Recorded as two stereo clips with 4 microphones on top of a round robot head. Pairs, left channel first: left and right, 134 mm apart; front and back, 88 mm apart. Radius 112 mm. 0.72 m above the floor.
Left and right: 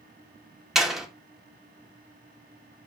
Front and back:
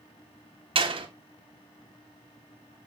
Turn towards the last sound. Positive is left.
turn(degrees=180)